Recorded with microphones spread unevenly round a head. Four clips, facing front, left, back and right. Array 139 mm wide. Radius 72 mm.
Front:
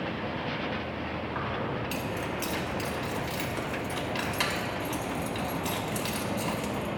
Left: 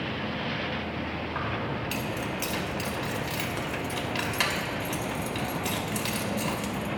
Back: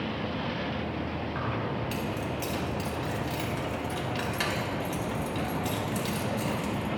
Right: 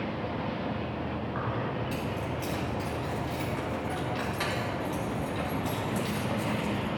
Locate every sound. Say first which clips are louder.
1.4 s keys jangling: left 1 dB, even; 75° left, 2.5 m